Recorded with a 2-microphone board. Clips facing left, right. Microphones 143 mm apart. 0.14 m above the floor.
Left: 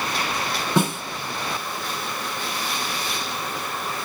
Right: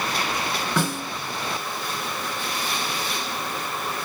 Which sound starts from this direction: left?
A snare drum, at 0.8 s.